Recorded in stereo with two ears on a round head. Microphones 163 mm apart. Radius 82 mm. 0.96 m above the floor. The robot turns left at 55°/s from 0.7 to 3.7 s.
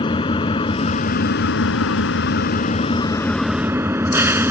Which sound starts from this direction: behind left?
An engine running, at 0.0 s.